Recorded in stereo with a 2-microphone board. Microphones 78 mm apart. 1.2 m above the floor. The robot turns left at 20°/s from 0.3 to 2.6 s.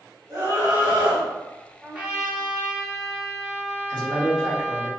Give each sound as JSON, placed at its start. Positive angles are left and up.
{"t": 0.3, "sound": "a scream", "side_deg": -60, "distance_m": 2.0}
{"t": 1.8, "sound": "a trumpet", "side_deg": -15, "distance_m": 0.9}
{"t": 3.9, "sound": "a man speaking", "side_deg": -65, "distance_m": 1.6}